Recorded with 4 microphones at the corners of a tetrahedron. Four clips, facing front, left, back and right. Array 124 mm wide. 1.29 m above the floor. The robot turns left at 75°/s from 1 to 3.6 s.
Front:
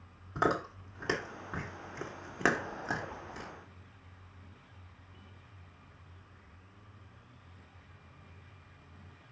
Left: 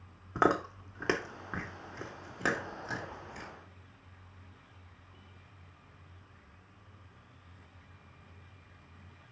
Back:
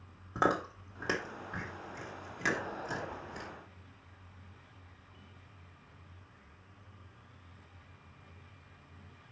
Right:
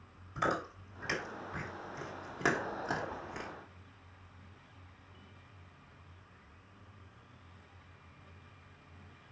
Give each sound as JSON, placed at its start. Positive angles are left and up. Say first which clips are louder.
{"t": 0.3, "sound": "chewing", "louder": "left 6 dB, even", "azimuth_deg": 110, "distance_m": 1.8}